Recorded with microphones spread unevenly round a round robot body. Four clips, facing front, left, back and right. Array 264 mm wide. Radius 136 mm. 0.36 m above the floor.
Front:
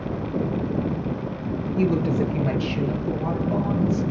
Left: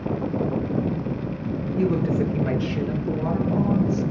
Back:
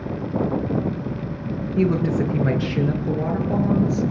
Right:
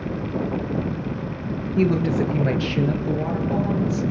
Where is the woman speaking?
125° right, 6 m; by 4.0 s 150° right, 7.5 m.